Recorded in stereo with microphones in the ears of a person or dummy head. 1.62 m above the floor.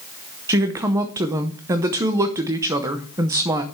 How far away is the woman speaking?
About 0.9 m.